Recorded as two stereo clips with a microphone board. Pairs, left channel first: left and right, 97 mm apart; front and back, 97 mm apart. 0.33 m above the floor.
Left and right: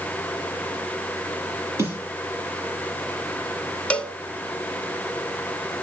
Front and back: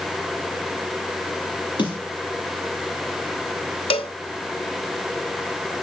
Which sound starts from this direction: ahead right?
A snare drum, at 1.8 s.